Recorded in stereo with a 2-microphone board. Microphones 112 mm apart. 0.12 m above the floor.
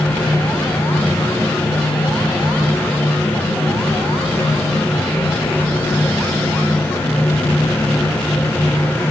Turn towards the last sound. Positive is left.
No sound to turn to.